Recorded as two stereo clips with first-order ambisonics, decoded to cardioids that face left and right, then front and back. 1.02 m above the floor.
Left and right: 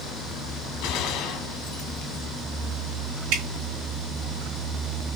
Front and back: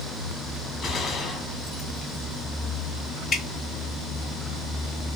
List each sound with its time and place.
0.8 s a gunshot: 65° left, 1.2 m
3.3 s dripping: 70° right, 2 m